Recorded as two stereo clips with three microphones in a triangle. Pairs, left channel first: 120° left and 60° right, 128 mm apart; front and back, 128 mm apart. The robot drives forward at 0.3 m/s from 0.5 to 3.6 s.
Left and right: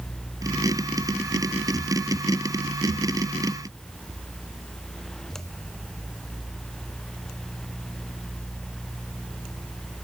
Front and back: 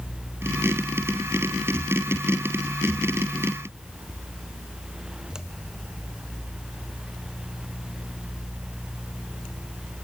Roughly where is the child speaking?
No child speaking in this recording.